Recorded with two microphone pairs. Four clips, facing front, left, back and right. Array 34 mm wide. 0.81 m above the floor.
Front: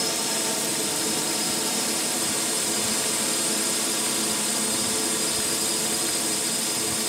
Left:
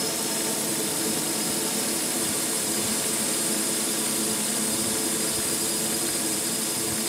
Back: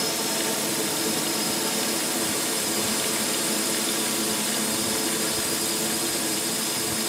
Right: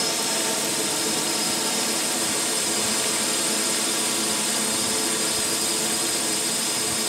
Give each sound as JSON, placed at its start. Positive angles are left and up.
{"t": 0.0, "sound": "a drone", "azimuth_deg": -90}